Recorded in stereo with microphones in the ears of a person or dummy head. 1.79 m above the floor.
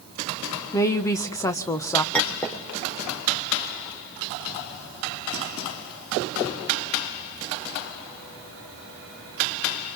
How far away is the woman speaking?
About 1.3 m.